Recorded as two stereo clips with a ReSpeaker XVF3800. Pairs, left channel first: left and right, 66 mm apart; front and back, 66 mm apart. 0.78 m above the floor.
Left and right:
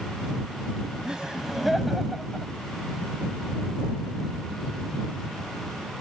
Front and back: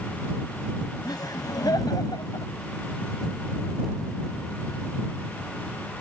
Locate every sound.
1.0 s laughter: 10° right; by 2.5 s 10° left